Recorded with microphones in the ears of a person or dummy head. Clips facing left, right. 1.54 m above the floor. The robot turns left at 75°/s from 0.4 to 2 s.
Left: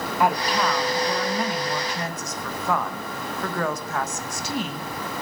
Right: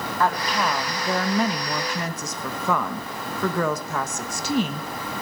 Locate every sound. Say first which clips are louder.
0.2 s a woman speaking: left 2 dB; 15° left, 1.4 m; by 4.9 s 105° right, 1.4 m